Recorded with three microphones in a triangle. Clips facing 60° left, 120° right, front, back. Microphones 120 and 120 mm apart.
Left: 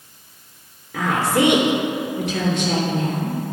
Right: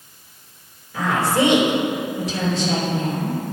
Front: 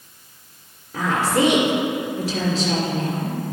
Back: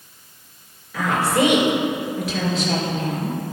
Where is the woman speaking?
45° left, 3 m.